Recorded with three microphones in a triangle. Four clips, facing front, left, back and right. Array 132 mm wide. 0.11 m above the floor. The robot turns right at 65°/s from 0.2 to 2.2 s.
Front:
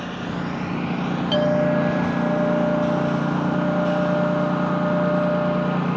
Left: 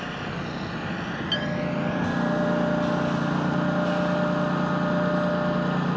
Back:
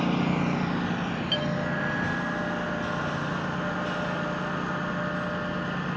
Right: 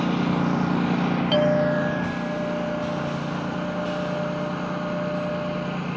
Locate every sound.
0.0 s a lawn mower: 115° right; by 6.0 s 15° left
1.3 s a clink: 50° right; by 5.8 s 5° left